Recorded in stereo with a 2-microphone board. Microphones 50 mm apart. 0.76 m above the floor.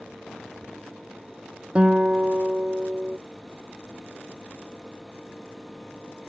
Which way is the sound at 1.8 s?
25° right (ahead or behind).